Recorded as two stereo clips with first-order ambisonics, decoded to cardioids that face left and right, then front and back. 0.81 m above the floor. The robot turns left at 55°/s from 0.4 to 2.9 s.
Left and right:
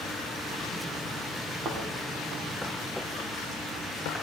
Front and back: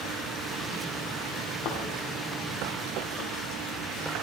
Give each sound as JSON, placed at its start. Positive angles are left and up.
{"t": 1.6, "sound": "a thud", "azimuth_deg": -35, "distance_m": 3.5}